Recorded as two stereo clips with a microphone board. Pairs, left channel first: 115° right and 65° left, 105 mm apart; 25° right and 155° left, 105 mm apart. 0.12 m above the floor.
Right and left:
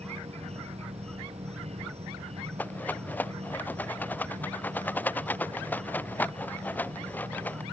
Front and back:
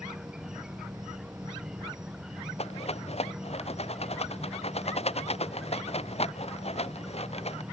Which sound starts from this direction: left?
An insect, at 0.0 s.